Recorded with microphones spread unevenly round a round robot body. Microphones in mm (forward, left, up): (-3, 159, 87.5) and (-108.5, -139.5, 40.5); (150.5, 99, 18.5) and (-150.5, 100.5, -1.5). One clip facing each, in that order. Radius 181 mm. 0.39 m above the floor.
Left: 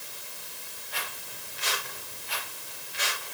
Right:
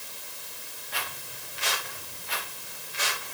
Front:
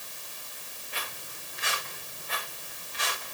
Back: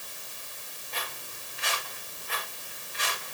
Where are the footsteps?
80° right, 6.5 m; by 3.4 s 60° right, 7 m.